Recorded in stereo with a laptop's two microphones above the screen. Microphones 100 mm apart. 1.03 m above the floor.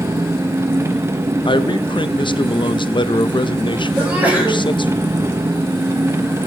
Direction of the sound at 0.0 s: 25° right (ahead or behind).